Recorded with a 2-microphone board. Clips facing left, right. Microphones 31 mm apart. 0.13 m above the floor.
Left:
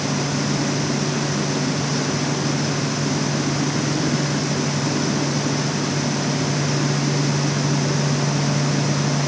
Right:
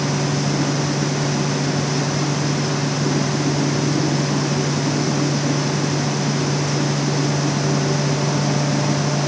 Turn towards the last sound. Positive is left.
No sound to turn to.